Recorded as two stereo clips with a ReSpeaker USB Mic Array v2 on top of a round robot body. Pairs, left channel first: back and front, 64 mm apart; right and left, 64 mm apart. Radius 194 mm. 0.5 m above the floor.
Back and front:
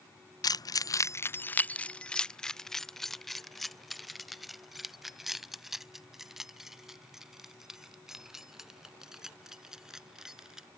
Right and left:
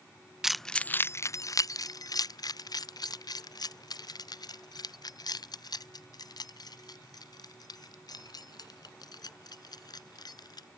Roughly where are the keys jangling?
Behind.